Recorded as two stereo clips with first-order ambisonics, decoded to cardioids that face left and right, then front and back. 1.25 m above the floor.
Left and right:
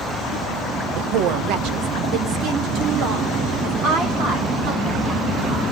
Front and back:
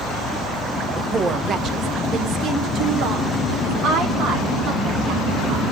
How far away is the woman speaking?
About 0.6 m.